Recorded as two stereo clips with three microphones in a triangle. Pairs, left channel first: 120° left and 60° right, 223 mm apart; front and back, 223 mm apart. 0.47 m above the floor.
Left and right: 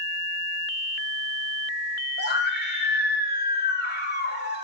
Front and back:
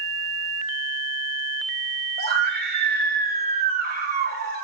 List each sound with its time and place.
2.2 s a scream: 150° left, 1.9 m